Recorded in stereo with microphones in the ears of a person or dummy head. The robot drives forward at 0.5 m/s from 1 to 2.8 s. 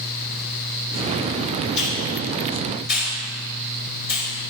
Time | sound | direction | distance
1.8 | a hiss | 50° left (ahead or behind) | 5 m